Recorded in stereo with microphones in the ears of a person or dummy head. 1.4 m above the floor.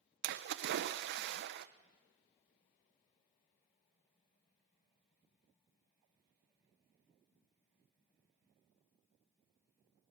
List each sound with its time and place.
0.2 s a splash: 65° right (ahead or behind), 0.8 m